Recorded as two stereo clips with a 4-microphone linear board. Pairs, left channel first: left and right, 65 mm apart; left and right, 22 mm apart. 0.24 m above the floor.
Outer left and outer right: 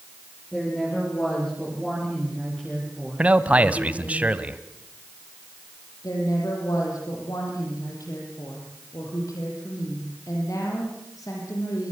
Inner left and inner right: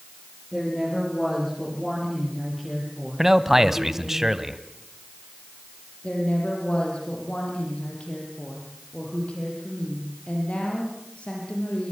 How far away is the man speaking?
About 1.3 m.